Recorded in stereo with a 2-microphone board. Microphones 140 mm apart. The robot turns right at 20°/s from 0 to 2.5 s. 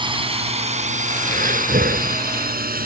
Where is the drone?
30° right (ahead or behind); by 2.9 s 85° right.